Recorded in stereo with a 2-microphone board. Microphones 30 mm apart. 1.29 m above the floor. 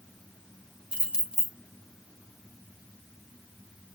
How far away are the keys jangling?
About 0.9 m.